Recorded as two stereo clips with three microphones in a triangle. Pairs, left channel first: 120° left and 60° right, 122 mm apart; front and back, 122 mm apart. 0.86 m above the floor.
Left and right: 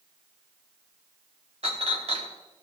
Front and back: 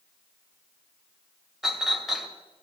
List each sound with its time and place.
1.6 s a clink: 90° right, 1.9 m